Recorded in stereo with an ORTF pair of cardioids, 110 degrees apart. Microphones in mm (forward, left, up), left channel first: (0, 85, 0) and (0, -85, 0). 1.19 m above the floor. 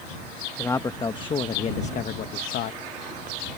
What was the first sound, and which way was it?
A man speaking, 15° left.